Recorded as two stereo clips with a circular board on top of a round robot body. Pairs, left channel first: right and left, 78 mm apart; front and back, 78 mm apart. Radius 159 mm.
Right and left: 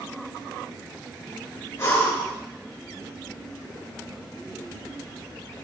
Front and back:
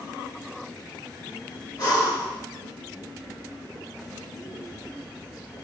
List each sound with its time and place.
1.8 s breathing: 35° right, 3.5 m